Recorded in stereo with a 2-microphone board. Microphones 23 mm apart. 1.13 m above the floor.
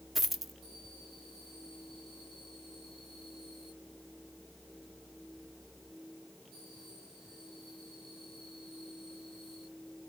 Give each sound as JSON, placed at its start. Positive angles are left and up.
{"t": 0.1, "sound": "a dropped coin", "side_deg": -10, "distance_m": 0.7}